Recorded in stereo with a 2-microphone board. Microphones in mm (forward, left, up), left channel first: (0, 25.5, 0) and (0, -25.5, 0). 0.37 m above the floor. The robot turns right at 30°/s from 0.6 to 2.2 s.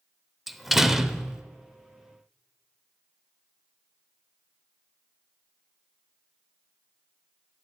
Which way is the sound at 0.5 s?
5° right (ahead or behind).